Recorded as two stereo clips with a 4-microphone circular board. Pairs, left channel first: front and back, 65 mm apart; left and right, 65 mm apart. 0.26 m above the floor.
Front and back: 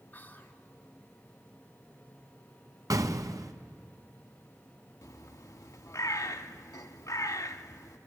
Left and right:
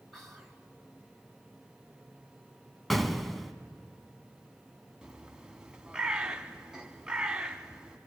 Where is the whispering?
10° left, 1.4 m.